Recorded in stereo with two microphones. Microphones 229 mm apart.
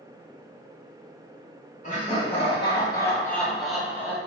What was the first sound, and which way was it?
Laughter, 35° left (ahead or behind).